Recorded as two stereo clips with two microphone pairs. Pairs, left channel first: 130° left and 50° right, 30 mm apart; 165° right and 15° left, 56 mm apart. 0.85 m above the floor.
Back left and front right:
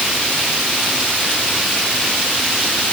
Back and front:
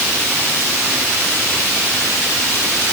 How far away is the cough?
I don't hear a cough.